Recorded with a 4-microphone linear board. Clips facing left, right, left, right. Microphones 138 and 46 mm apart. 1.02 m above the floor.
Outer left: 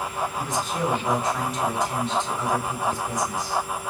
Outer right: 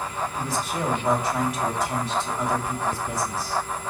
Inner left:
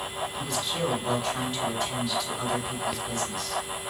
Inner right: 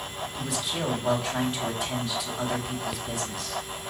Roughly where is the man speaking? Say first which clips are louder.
Outer left 1 dB, inner right 1 dB; centre.